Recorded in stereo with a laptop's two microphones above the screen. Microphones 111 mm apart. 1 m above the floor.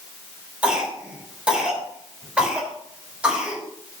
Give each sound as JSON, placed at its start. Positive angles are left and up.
{"t": 0.6, "sound": "a cough", "side_deg": -10, "distance_m": 4.0}